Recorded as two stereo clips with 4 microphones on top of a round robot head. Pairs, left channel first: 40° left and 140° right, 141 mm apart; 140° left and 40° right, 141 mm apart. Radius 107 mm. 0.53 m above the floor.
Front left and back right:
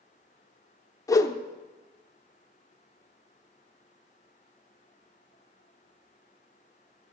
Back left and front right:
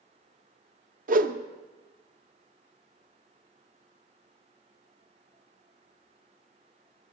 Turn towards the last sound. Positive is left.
turn(degrees=-25)